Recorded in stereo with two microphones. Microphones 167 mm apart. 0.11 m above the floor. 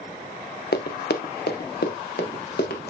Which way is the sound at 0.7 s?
75° left (ahead or behind).